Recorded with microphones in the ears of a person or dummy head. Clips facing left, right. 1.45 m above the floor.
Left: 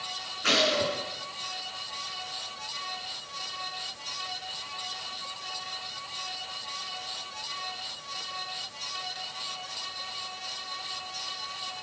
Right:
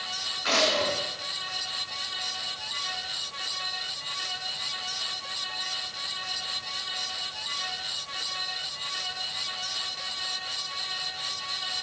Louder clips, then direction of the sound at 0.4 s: Even; 45° left (ahead or behind).